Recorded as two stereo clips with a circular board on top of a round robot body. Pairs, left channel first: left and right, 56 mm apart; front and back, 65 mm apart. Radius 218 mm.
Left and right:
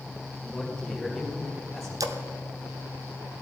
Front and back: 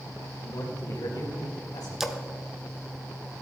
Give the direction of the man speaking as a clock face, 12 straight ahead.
12 o'clock.